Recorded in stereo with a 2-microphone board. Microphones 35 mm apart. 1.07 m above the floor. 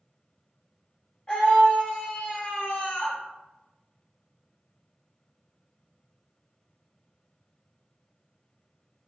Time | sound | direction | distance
1.3 | a scream | 45° left (ahead or behind) | 1.5 m